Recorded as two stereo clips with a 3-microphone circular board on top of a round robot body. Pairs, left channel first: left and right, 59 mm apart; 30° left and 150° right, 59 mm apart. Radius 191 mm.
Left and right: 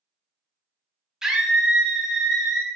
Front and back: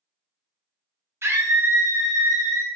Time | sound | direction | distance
1.2 | a scream | 165° right | 1.1 m